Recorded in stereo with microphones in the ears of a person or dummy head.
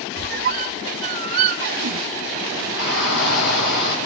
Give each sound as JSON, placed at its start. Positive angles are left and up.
{"t": 0.2, "sound": "a squeak", "side_deg": -40, "distance_m": 0.7}
{"t": 2.8, "sound": "a shout", "side_deg": 70, "distance_m": 8.5}